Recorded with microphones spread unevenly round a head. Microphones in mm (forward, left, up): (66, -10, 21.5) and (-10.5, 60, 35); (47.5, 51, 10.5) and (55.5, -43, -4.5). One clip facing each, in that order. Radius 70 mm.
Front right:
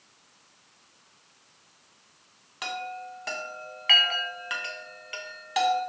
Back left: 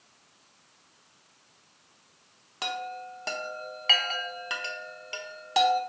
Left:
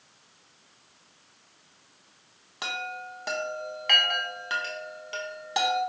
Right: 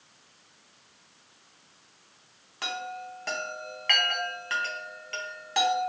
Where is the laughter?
No laughter in this recording.